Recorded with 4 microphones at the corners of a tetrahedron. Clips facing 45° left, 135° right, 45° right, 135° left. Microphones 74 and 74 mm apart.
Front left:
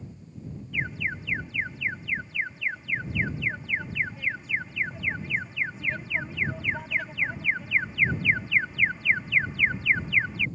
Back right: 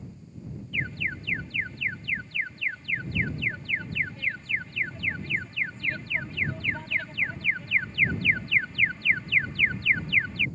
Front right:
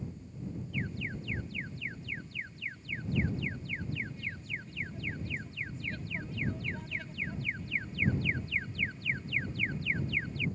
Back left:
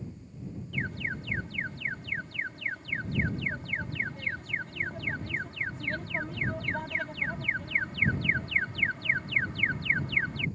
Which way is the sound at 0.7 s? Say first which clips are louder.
Front left 1 dB, back left 6 dB; 125° left.